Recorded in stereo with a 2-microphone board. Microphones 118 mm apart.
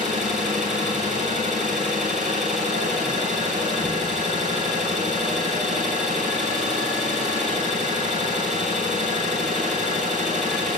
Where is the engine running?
80° right, 2.0 m.